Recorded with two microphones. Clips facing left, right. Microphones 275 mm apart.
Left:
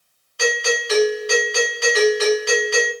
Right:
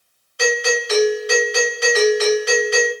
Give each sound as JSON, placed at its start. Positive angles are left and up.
{"t": 0.4, "sound": "a doorbell", "side_deg": -20, "distance_m": 1.7}